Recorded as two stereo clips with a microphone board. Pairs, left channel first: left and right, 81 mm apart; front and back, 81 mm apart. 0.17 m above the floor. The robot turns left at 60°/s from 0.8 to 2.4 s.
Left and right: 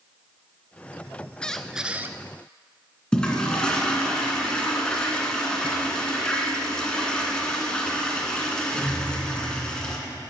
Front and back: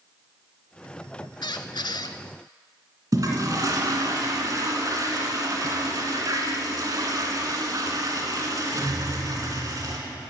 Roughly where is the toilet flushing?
Behind.